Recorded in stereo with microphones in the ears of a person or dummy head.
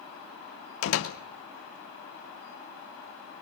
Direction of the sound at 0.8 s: 85° left.